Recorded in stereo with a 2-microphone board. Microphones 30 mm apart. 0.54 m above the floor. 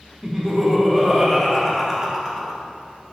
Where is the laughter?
15° right (ahead or behind), 1.2 m.